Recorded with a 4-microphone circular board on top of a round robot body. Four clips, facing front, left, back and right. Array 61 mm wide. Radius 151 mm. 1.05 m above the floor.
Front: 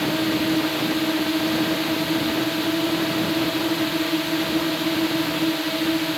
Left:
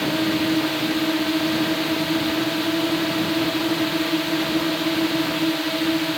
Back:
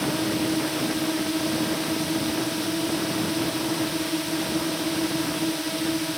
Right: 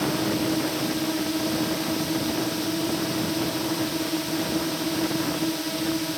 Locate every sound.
0.0 s a drone: 60° left